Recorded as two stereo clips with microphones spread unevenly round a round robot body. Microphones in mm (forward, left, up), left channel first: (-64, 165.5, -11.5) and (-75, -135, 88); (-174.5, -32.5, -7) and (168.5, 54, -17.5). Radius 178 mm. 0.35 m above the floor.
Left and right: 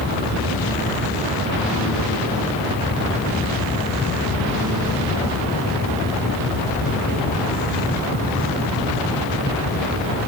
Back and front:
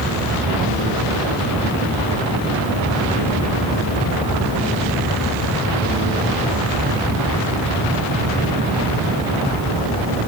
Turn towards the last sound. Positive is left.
No sound to turn to.